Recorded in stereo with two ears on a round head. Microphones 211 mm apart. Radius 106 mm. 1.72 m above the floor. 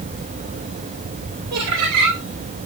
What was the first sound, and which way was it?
Laughter, 85° right.